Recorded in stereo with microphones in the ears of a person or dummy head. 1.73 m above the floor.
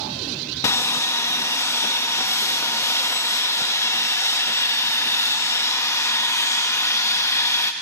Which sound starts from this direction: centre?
Sawing, at 0.6 s.